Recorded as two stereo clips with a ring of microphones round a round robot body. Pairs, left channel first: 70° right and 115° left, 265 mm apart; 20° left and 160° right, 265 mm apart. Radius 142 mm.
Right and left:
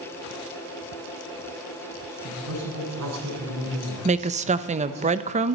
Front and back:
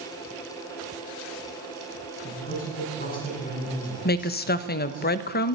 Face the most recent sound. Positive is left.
turn(degrees=60)